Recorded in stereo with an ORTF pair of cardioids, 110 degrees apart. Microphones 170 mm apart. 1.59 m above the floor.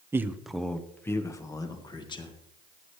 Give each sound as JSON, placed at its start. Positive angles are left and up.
{"t": 0.1, "sound": "a man speaking", "azimuth_deg": -15, "distance_m": 0.9}